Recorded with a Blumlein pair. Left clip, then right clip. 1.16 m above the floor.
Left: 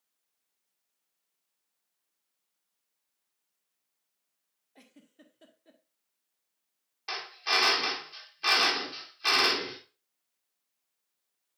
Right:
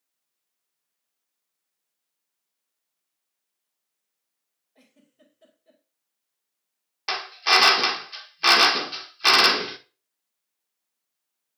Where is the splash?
I don't hear a splash.